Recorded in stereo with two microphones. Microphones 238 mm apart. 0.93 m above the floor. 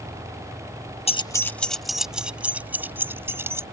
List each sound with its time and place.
1.1 s keys jangling: 25° left (ahead or behind); by 3.6 s 10° right (ahead or behind)